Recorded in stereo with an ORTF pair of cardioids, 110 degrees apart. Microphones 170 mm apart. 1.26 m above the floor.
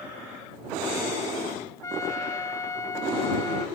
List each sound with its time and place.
1.8 s a trumpet: 20° left